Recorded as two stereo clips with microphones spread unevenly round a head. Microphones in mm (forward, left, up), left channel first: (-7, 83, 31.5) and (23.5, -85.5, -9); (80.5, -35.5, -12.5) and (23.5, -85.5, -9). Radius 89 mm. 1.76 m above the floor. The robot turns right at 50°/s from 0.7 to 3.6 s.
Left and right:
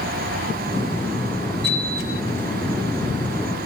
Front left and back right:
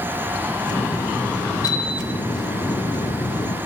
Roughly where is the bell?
Ahead.